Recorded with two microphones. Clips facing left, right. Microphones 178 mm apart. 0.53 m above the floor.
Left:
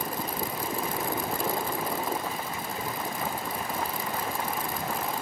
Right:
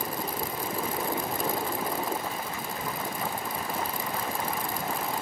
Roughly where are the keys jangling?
Left.